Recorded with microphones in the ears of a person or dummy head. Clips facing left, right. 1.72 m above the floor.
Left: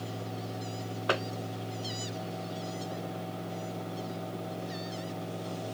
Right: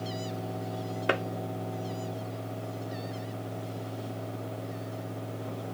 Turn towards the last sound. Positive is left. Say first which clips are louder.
# right 2 dB
turn(degrees=-35)  # may be behind; listen again after turning